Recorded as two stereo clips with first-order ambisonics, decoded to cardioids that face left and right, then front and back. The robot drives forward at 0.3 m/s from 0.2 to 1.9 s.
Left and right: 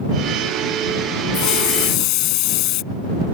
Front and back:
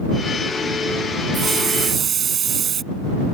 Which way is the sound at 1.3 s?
115° left.